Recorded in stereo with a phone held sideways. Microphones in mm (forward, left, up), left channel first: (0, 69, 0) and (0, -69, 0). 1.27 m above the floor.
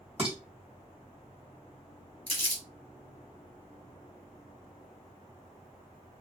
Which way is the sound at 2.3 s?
40° left (ahead or behind).